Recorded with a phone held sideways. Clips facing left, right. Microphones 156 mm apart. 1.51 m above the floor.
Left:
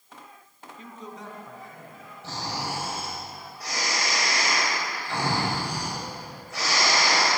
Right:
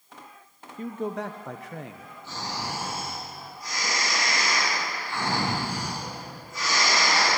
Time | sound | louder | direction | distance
0.8 | a man speaking | right 11 dB | 45° right (ahead or behind) | 0.7 m
2.2 | snoring | left 2 dB | 90° left | 9 m